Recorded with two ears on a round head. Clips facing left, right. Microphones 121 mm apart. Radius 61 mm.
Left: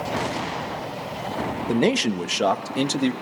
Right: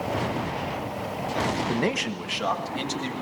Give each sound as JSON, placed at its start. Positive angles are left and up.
{"t": 1.7, "sound": "a man speaking", "side_deg": 20, "distance_m": 0.7}